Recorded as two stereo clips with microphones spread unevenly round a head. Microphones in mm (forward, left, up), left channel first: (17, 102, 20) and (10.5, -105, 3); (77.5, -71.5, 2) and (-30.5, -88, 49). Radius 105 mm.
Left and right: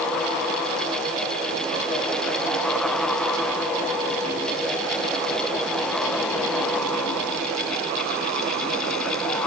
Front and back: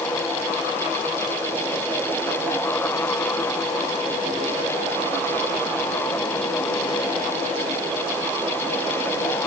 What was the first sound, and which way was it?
Only background noise.